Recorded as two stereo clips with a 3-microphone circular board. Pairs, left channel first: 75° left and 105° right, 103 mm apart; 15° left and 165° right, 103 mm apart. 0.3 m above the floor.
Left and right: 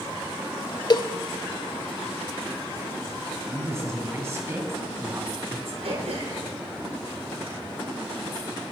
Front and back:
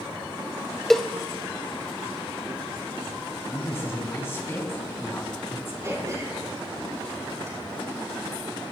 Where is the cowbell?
100° left, 0.5 m.